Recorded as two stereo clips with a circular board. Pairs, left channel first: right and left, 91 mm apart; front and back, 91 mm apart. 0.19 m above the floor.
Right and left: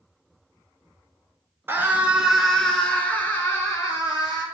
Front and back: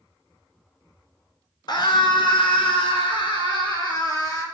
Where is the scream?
25° left, 2 m; by 4.5 s 40° right, 3.5 m.